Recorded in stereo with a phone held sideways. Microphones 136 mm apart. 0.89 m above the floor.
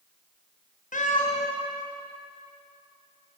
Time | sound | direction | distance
0.9 | a cat meowing | 80° left | 0.7 m